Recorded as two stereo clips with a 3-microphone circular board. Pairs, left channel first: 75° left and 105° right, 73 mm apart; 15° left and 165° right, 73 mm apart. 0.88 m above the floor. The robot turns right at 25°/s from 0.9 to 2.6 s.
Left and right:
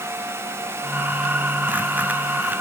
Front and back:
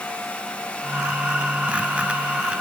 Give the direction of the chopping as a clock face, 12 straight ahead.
No chopping in this recording.